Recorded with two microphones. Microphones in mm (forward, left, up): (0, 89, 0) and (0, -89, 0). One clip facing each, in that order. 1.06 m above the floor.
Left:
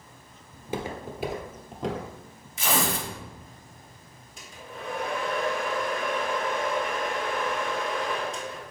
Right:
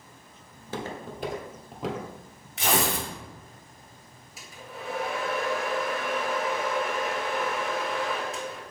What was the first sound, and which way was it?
Footsteps, 20° left (ahead or behind).